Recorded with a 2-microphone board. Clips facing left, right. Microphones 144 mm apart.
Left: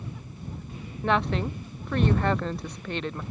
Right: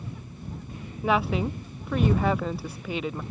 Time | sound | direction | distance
1.0 | a woman speaking | 5° right (ahead or behind) | ?